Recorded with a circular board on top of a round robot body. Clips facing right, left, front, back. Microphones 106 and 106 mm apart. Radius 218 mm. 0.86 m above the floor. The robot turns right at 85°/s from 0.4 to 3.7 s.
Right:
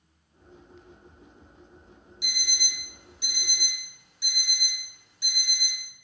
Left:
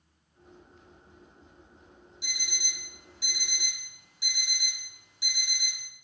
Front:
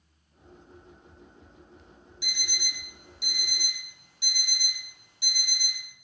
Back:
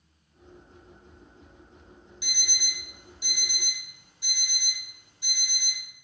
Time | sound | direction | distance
2.2 | an alarm clock | 110° right | 1.5 m